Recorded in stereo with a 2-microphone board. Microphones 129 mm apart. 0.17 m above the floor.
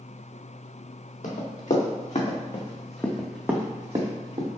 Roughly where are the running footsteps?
Left.